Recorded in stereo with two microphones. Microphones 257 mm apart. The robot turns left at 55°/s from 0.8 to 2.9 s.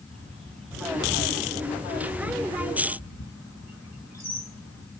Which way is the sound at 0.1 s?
25° right (ahead or behind).